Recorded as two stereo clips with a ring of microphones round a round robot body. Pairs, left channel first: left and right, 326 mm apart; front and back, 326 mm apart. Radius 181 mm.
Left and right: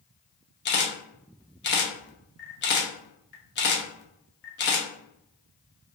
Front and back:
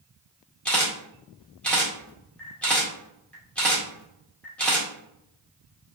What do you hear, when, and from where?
0.7 s a camera shutter: 85° left, 0.9 m